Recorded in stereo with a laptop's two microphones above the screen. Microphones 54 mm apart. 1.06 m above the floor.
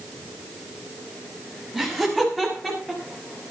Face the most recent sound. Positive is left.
turn(degrees=15)  # may be behind; listen again after turning